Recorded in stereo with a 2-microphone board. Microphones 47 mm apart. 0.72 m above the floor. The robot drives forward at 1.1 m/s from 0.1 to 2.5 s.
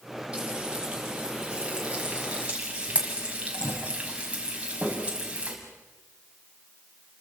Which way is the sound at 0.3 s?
15° right (ahead or behind).